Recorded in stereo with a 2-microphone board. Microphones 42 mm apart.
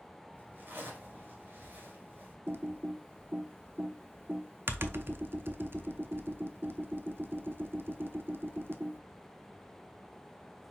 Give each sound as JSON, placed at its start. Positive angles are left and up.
{"t": 0.3, "sound": "a zipper", "side_deg": -45, "distance_m": 1.7}
{"t": 2.5, "sound": "typing on a keyboard", "side_deg": -60, "distance_m": 0.5}